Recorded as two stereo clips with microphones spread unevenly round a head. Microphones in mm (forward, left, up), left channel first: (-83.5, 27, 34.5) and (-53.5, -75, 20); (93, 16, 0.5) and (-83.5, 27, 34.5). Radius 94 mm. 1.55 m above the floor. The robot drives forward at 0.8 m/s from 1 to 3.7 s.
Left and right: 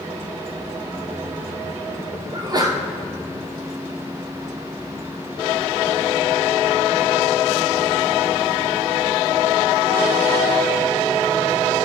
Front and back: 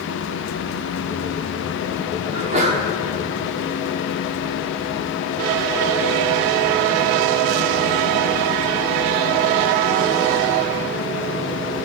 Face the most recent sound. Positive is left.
turn(degrees=-145)